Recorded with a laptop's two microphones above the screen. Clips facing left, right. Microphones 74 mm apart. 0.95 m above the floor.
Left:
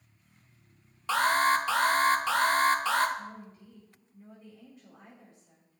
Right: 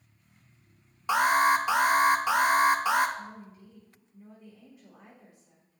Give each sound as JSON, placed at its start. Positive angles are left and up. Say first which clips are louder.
{"t": 1.1, "sound": "an alarm", "louder": "right 2 dB", "side_deg": -15, "distance_m": 0.6}
{"t": 3.2, "sound": "a woman speaking", "louder": "even", "side_deg": -10, "distance_m": 1.5}